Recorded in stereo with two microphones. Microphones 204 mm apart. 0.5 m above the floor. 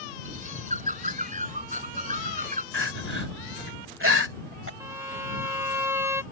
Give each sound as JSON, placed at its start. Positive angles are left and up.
{"t": 0.2, "sound": "a bird", "side_deg": -35}
{"t": 2.7, "sound": "crying", "side_deg": -70}
{"t": 4.8, "sound": "a violin", "side_deg": -10}